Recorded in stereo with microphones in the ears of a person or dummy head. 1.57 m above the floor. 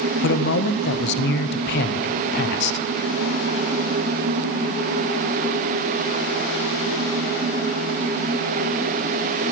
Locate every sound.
0.2 s a man speaking: 60° left (ahead or behind), 0.9 m